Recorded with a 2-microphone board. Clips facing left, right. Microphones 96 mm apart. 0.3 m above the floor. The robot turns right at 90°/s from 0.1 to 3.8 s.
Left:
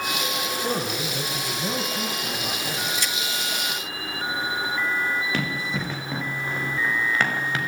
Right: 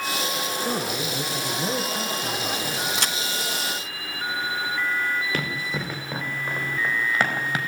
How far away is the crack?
About 0.9 m.